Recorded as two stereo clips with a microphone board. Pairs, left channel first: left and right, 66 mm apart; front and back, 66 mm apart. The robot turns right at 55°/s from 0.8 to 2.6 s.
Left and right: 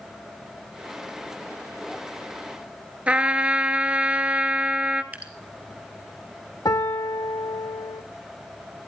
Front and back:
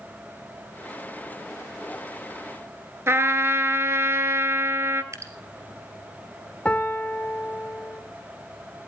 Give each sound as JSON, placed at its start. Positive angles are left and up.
{"t": 3.1, "sound": "a trumpet", "azimuth_deg": -150, "distance_m": 1.0}
{"t": 5.1, "sound": "dripping", "azimuth_deg": -155, "distance_m": 2.0}
{"t": 6.7, "sound": "a piano", "azimuth_deg": 75, "distance_m": 1.4}